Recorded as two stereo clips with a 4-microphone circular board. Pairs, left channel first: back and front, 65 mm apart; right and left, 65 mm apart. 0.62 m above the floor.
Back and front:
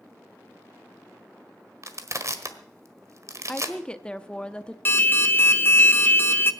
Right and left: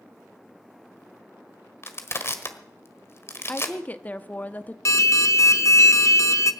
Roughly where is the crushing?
Ahead right.